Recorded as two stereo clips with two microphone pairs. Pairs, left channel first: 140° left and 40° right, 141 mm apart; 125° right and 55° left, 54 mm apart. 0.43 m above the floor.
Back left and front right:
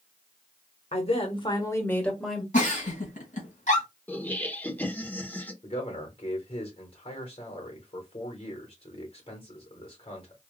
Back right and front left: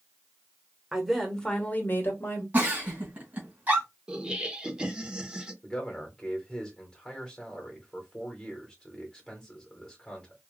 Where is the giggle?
110° left, 2.5 m.